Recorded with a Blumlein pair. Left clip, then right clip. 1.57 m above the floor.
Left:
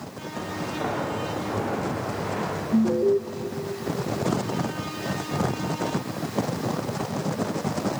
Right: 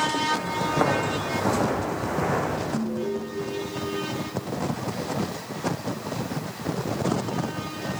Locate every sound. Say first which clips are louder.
0.3 s footsteps: right 7 dB; 30° right, 6 m; by 2.6 s 55° right, 5.5 m
2.7 s an alarm: left 7 dB; 60° left, 1.0 m